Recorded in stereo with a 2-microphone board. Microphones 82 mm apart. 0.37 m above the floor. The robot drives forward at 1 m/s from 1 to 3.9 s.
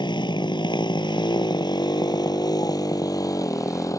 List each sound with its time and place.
0.0 s a motorcycle: 80° left; by 4.0 s 45° left (ahead or behind)